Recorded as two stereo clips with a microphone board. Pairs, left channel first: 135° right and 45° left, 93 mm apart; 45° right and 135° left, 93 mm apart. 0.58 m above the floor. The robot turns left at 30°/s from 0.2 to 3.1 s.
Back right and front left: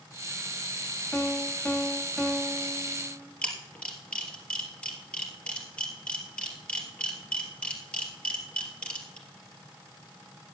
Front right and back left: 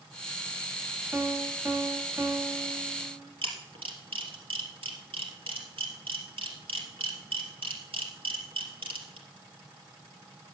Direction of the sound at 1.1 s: 165° left.